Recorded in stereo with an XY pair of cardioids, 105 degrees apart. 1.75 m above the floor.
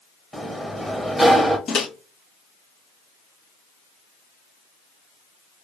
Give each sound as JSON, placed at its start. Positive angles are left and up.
{"t": 0.3, "sound": "a sliding door", "azimuth_deg": 10, "distance_m": 1.0}
{"t": 1.7, "sound": "a microwave", "azimuth_deg": 55, "distance_m": 1.0}